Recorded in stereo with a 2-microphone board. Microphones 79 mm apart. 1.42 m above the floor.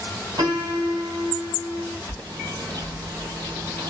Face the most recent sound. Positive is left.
turn(degrees=-60)  # may be behind; listen again after turning